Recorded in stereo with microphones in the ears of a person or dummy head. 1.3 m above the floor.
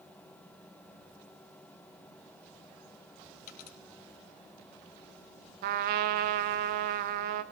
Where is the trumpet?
55° right (ahead or behind), 0.8 m.